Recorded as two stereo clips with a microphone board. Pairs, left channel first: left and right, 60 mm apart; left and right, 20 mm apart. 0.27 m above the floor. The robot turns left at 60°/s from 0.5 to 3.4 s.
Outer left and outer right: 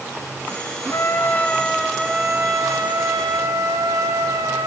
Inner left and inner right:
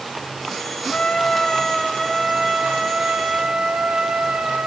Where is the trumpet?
50° left, 3.5 m; by 4.7 s 95° right, 3.5 m.